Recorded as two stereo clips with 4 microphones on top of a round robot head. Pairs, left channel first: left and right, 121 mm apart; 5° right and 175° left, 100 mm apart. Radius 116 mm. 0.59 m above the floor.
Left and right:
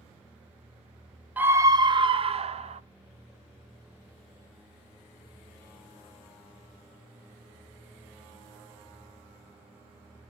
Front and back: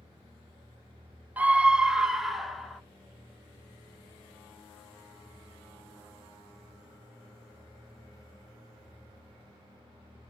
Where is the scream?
145° right, 0.6 m; by 2.8 s 90° right, 1.1 m.